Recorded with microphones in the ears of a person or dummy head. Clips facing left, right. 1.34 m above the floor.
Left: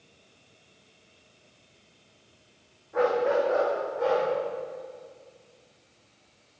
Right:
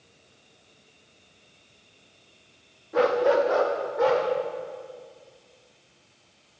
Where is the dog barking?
30° right (ahead or behind), 0.9 m; by 4.2 s 70° right (ahead or behind), 2.5 m.